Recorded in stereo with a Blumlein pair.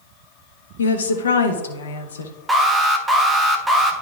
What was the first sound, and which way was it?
A woman speaking, 65° left.